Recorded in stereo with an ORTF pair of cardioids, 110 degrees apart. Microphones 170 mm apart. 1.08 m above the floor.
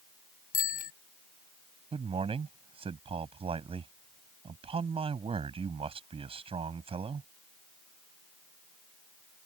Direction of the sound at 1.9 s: 35° right.